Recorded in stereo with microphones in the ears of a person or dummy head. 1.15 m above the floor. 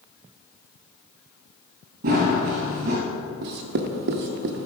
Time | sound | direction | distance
2.0 | running footsteps | 45° right (ahead or behind) | 1.5 m
3.4 | writing | 60° right (ahead or behind) | 0.6 m